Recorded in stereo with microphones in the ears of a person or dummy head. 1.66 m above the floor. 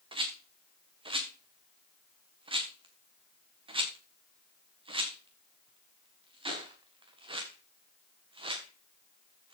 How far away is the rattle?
About 1.7 m.